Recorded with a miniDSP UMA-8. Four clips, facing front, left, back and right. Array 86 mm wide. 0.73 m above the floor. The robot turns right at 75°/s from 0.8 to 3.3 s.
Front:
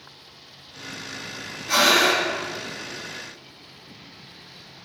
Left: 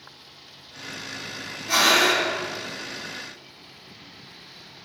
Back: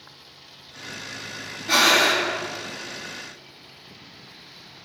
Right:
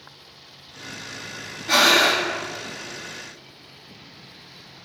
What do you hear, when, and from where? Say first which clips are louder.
1.7 s breathing: right 2 dB, even; 130° right, 1.2 m; by 2.3 s 85° right, 1.2 m